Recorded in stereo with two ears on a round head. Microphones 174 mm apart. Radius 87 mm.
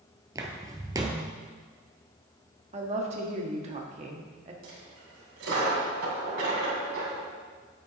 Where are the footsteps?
20° right (ahead or behind), 1.2 m.